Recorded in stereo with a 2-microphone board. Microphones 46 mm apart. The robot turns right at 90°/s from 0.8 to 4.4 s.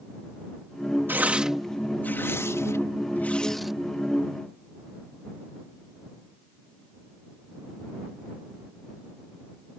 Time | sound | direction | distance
1.1 | tearing paper | 50° right (ahead or behind) | ?